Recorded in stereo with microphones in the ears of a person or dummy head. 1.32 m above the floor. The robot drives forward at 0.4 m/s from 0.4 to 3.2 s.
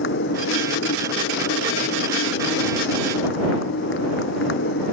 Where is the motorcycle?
60° left (ahead or behind).